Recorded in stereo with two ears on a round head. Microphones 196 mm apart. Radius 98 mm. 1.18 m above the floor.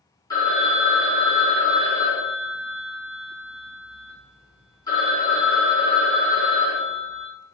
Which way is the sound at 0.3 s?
15° left (ahead or behind).